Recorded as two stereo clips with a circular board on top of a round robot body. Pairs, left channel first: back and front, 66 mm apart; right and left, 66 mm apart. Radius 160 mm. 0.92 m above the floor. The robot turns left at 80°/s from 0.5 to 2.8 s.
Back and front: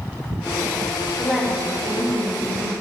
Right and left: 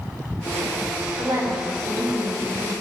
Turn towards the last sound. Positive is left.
turn(degrees=-35)